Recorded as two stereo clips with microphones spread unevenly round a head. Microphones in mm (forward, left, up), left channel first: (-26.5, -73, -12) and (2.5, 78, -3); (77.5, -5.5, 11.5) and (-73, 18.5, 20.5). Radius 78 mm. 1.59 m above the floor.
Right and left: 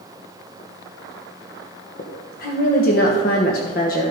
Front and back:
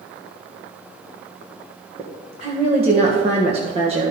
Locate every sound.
2.0 s a woman speaking: 135° right, 1.4 m